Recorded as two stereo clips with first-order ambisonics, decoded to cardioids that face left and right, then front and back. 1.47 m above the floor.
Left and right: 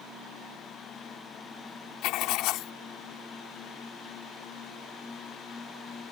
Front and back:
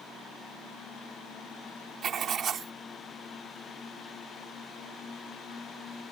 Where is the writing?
120° left.